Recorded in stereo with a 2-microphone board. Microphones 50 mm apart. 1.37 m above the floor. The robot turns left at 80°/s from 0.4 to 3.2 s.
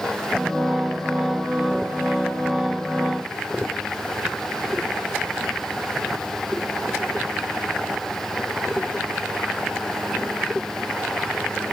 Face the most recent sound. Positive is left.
No sound to turn to.